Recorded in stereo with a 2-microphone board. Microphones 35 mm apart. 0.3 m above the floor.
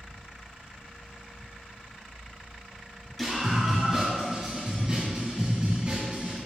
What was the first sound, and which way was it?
A scream, centre (ahead or behind).